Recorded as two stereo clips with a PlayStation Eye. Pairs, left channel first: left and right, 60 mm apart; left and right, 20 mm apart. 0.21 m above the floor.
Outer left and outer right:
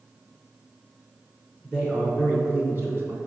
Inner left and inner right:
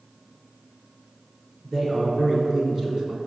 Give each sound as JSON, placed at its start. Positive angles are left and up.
{"t": 1.6, "sound": "a man speaking", "side_deg": -15, "distance_m": 1.6}